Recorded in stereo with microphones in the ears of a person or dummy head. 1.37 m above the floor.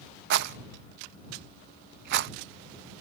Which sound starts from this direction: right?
A rattle, at 0.3 s.